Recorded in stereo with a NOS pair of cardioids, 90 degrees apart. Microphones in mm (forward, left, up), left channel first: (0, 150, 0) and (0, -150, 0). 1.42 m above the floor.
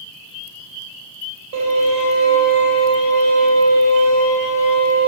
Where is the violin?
60° right, 3.5 m.